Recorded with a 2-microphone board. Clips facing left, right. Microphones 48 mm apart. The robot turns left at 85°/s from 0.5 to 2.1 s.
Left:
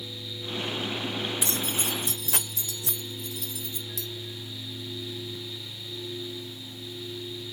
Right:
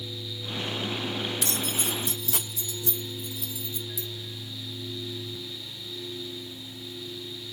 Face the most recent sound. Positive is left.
turn(degrees=60)  # may be behind; listen again after turning